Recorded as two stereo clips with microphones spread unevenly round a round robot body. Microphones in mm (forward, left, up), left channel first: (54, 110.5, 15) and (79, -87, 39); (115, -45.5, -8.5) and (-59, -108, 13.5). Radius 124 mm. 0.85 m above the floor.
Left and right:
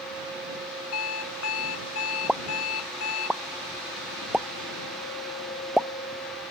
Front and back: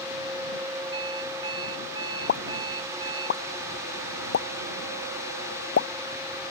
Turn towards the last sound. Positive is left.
turn(degrees=5)